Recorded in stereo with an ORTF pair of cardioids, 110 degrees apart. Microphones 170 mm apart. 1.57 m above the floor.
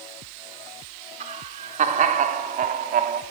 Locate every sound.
1.2 s laughter: 45° right, 4.5 m; by 3.2 s 60° right, 3.5 m